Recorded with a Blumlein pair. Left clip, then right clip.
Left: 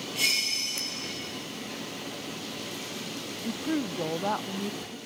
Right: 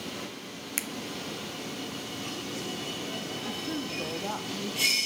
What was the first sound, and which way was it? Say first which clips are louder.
A finger snap: left 2 dB; 25° right.